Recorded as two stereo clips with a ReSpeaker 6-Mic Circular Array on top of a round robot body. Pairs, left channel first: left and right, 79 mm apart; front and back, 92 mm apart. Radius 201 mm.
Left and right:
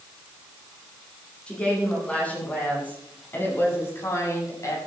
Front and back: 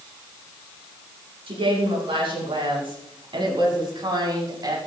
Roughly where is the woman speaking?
Behind.